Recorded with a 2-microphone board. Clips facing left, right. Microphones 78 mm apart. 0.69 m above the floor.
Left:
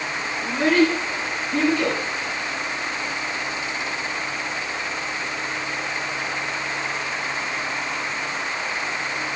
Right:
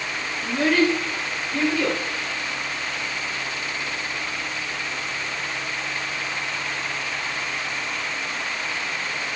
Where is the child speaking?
20° left (ahead or behind), 3.5 m; by 2.0 s 50° left (ahead or behind), 3.5 m.